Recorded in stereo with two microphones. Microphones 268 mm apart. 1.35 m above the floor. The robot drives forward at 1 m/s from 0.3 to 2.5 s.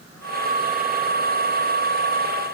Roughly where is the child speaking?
I don't hear a child speaking.